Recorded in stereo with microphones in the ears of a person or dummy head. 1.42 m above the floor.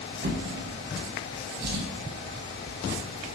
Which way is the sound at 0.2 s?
55° right (ahead or behind).